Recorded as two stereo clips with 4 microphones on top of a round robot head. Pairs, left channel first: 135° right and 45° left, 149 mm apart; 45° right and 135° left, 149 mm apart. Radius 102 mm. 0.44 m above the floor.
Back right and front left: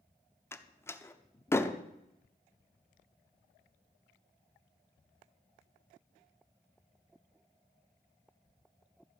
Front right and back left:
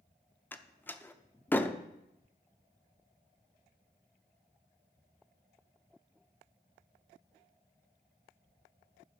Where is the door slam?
95° right, 0.9 m.